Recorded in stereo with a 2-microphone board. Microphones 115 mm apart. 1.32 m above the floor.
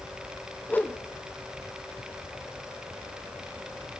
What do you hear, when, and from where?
0.7 s a whoosh: 15° left (ahead or behind), 0.6 m